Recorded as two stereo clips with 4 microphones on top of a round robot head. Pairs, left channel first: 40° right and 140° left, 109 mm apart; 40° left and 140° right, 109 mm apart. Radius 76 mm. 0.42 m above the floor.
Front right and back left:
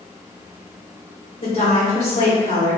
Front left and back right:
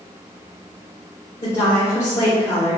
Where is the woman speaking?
15° right, 1.8 m.